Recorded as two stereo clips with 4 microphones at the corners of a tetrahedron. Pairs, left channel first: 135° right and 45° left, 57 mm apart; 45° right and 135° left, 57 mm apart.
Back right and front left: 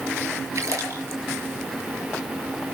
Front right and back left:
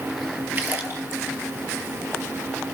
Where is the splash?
75° left, 5.5 m.